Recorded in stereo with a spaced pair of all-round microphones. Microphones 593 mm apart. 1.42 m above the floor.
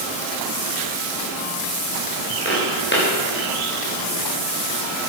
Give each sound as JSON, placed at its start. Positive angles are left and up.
{"t": 2.5, "sound": "footsteps", "side_deg": 20, "distance_m": 9.5}